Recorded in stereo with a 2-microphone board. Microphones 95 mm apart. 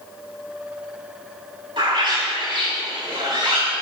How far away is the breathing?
I don't hear breathing.